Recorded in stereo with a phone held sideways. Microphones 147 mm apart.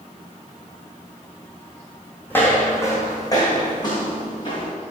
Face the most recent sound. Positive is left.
turn(degrees=35)  # may be behind; listen again after turning